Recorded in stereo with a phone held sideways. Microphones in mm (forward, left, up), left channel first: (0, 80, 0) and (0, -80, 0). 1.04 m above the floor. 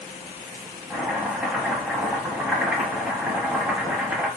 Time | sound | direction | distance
0.9 | chopping | 5° right (ahead or behind) | 1.0 m